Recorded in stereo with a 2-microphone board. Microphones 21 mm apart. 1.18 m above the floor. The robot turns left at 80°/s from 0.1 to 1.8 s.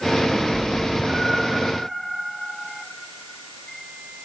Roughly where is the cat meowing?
Right.